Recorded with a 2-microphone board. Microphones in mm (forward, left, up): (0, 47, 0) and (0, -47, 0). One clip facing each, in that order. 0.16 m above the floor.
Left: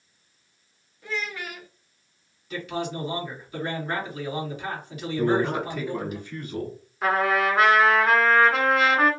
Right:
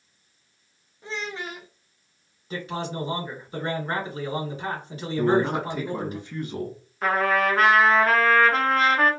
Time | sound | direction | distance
1.0 | a child speaking | 25° right (ahead or behind) | 0.7 m
2.5 | a man speaking | 30° right (ahead or behind) | 1.5 m
5.2 | a man speaking | 20° right (ahead or behind) | 1.0 m
7.0 | a trumpet | centre (ahead or behind) | 1.2 m